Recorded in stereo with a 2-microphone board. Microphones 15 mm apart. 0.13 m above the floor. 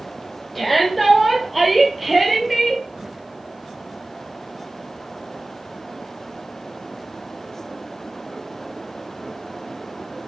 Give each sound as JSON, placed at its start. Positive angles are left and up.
{"t": 0.6, "sound": "a shout", "side_deg": 5, "distance_m": 3.5}